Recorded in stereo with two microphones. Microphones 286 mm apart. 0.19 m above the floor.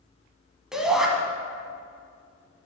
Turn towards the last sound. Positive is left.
turn(degrees=0)  # may be behind; listen again after turning